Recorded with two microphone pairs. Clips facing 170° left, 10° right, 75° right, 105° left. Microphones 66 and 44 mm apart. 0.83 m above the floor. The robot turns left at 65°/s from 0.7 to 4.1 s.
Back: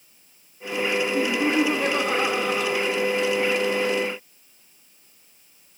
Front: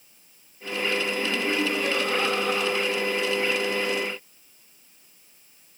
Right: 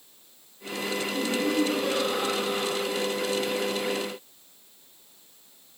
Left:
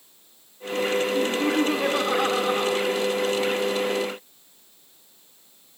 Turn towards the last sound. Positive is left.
turn(degrees=-20)